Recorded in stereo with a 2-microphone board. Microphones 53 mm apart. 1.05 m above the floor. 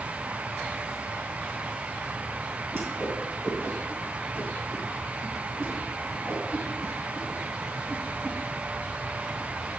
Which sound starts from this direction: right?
A whoosh, at 2.7 s.